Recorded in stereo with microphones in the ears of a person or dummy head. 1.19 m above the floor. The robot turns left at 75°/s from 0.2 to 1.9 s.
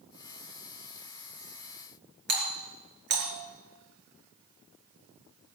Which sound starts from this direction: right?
A doorbell, at 2.3 s.